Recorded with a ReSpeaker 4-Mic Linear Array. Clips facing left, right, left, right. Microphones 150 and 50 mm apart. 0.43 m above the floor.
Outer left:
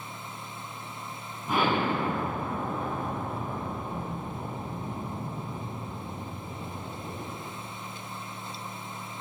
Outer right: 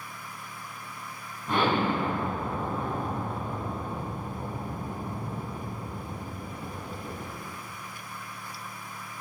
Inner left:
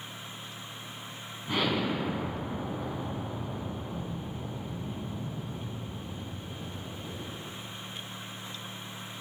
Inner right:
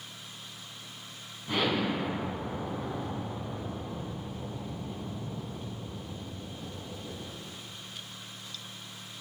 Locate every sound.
1.5 s an explosion: 5° left (ahead or behind), 2 m